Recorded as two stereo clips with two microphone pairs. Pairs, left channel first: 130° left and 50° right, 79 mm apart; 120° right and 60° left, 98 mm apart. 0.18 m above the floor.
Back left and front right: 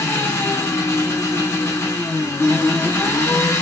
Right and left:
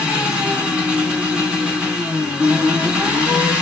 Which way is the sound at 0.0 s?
130° left.